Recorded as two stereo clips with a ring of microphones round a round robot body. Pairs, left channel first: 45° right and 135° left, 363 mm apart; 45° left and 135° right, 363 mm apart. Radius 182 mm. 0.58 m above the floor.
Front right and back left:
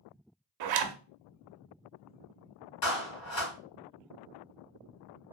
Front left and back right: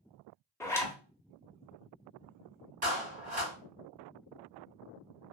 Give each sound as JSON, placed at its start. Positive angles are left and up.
{"t": 0.6, "sound": "a zipper", "azimuth_deg": 125, "distance_m": 0.6}
{"t": 2.8, "sound": "a clap", "azimuth_deg": -65, "distance_m": 2.5}